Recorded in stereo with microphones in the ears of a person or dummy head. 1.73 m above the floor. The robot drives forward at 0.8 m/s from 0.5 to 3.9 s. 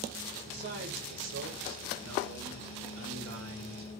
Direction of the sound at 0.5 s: 65° right (ahead or behind).